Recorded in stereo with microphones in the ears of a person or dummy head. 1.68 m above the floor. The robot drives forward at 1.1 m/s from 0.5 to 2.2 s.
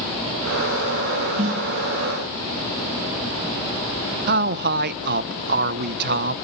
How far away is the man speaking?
About 0.9 m.